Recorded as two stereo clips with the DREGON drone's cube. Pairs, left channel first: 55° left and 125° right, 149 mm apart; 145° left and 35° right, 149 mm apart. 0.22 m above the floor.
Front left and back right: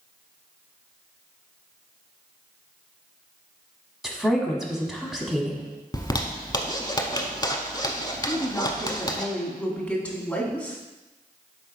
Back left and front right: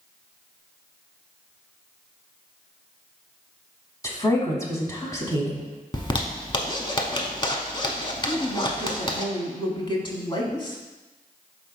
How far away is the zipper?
About 0.8 m.